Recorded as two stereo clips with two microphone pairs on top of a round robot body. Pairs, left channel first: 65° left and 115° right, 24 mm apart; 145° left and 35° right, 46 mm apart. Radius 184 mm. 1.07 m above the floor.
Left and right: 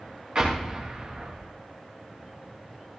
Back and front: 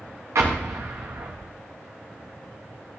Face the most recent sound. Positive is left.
turn(degrees=-65)